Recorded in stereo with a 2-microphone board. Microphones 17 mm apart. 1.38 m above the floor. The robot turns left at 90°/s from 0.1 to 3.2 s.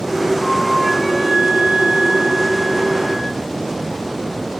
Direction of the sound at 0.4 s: 60° left.